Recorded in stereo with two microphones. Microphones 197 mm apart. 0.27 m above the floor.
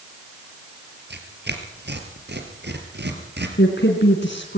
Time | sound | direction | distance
1.1 | tearing paper | 60° right (ahead or behind) | 3 m
3.6 | a woman speaking | 65° left (ahead or behind) | 2.5 m